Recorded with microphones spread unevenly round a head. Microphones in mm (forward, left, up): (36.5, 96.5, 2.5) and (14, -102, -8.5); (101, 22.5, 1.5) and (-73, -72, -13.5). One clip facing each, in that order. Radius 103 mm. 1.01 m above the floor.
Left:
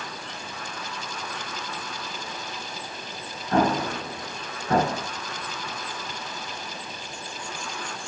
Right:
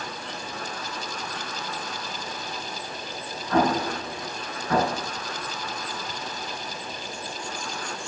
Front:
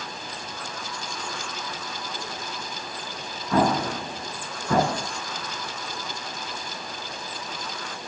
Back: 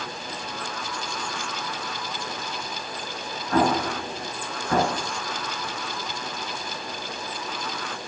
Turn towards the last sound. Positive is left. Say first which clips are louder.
# even, even
turn(degrees=30)